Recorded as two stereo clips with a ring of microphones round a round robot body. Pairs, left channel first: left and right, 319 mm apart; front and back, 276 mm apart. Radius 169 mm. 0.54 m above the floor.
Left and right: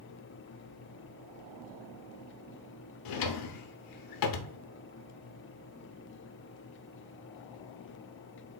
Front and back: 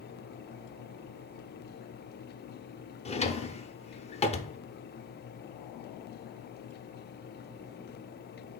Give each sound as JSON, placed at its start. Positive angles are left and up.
{"t": 3.0, "sound": "a drawer", "azimuth_deg": 70, "distance_m": 0.5}